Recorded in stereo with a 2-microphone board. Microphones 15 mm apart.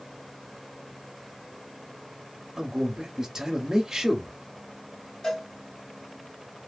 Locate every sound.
2.6 s a man speaking: 30° right (ahead or behind), 0.9 m
5.2 s a cowbell: 60° left (ahead or behind), 1.9 m